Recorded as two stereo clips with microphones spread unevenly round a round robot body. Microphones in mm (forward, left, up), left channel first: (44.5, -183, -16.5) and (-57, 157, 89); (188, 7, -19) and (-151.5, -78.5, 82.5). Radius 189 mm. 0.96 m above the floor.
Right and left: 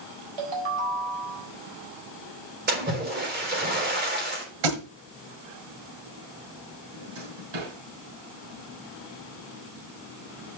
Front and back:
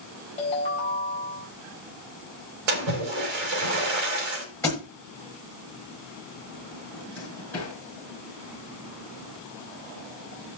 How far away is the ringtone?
About 4 m.